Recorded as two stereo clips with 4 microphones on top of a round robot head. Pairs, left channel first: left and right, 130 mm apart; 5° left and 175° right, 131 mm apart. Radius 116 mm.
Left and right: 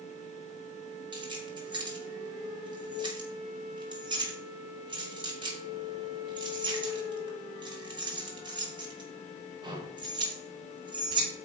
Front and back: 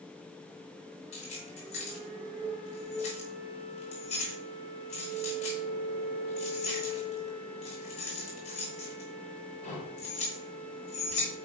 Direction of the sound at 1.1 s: 35° right.